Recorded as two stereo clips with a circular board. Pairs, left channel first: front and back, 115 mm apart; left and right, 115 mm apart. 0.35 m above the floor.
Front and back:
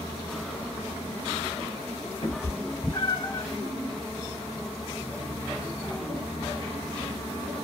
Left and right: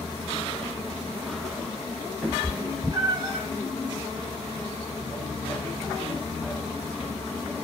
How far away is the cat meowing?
About 0.9 m.